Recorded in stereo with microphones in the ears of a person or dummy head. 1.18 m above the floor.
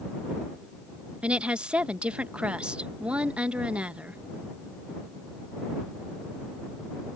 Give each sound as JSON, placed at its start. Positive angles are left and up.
{"t": 1.2, "sound": "a woman speaking", "side_deg": -5}